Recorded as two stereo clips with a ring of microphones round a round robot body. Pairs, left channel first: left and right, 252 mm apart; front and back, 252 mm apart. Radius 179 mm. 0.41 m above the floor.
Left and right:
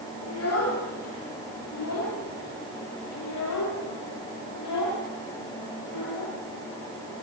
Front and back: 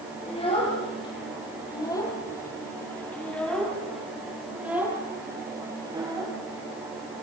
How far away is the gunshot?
I don't hear a gunshot.